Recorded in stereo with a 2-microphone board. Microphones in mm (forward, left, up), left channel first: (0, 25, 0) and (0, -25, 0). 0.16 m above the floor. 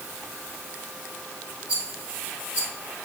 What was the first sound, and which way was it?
A rattle, 30° right (ahead or behind).